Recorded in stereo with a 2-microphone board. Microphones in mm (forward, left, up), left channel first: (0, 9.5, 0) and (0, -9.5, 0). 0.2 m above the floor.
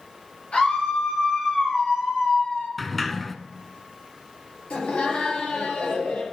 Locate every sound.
0.5 s a scream: 70° left (ahead or behind), 4 m
2.8 s a sliding door: 5° left (ahead or behind), 0.6 m
4.7 s laughter: 75° left (ahead or behind), 3.5 m